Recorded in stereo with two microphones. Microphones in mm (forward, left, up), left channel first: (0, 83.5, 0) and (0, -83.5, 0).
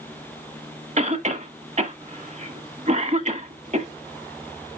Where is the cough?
45° right (ahead or behind), 1.5 m.